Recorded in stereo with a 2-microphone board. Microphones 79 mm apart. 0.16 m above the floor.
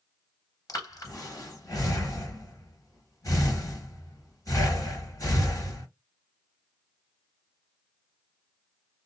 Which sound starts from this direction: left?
Breathing, at 0.7 s.